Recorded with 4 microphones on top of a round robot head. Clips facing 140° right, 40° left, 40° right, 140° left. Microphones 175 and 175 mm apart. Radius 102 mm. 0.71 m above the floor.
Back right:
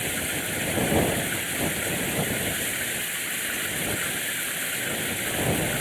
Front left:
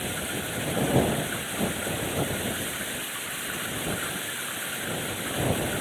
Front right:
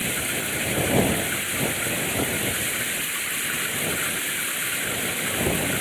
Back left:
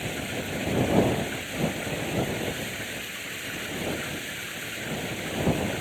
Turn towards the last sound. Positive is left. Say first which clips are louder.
# back right 1 dB, front right 2 dB
turn(degrees=-70)